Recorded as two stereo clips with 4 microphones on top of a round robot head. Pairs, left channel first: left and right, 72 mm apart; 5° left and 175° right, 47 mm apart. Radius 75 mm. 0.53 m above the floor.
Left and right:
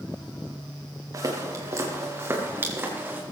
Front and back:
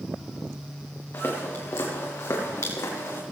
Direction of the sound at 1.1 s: 50° right.